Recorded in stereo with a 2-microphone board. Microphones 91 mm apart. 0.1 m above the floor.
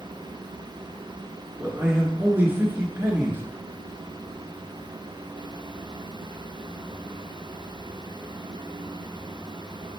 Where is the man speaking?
20° right (ahead or behind), 1.2 m.